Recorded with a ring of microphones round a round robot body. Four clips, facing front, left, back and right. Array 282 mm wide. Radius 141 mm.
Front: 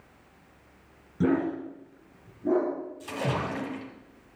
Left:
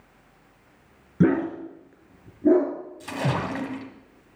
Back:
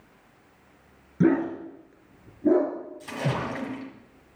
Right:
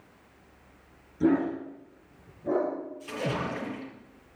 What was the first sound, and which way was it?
A dog barking, 105° left.